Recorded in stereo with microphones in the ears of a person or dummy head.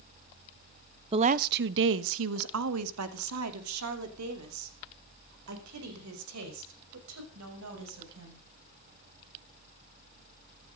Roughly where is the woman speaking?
Right.